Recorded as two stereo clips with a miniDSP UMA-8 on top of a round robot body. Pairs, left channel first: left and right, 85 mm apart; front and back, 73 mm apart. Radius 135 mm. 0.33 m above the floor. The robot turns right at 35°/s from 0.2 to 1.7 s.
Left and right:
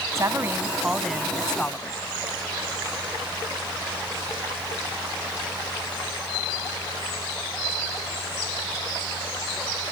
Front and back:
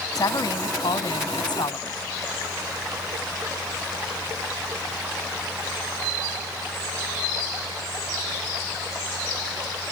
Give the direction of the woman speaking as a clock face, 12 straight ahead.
1 o'clock.